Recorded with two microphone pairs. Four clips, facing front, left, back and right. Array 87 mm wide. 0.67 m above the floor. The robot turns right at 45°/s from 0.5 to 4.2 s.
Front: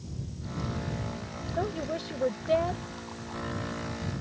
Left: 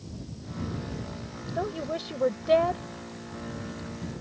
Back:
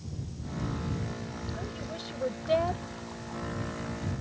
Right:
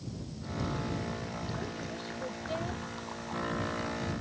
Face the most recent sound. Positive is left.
turn(degrees=165)